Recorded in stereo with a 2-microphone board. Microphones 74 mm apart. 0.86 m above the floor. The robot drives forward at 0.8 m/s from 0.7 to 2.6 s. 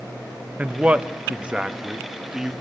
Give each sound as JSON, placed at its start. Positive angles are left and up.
{"t": 0.6, "sound": "a man speaking", "side_deg": -20, "distance_m": 0.8}